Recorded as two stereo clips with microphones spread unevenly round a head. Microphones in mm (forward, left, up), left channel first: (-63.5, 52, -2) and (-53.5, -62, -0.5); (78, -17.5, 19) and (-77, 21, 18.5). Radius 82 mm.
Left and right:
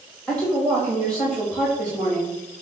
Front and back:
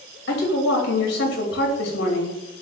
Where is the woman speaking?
10° left, 2.5 m.